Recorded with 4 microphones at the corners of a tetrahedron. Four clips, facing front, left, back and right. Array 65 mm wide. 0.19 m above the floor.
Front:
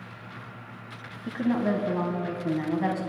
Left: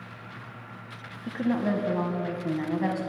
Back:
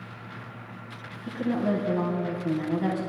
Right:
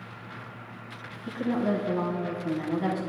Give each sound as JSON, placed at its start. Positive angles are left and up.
{"t": 1.3, "sound": "a woman speaking", "azimuth_deg": 35, "distance_m": 1.0}